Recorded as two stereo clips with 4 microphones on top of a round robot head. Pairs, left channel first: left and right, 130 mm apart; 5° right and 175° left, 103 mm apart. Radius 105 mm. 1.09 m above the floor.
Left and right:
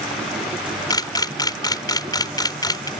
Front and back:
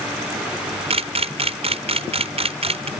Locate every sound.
0.9 s a camera shutter: 150° left